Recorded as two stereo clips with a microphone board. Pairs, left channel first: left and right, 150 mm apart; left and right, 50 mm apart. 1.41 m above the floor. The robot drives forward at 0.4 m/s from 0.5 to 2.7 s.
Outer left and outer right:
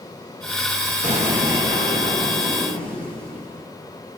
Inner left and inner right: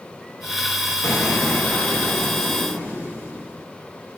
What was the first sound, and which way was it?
An explosion, 60° left (ahead or behind).